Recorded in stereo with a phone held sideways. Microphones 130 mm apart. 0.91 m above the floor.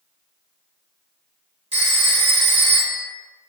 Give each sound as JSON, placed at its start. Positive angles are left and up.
{"t": 1.7, "sound": "a phone ringing", "side_deg": -50, "distance_m": 0.9}